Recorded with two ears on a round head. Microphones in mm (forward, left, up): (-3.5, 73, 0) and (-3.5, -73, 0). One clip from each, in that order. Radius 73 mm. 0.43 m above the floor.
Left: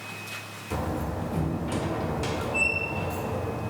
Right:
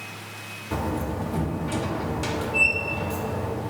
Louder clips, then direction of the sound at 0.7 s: Right 2 dB; 10° right (ahead or behind).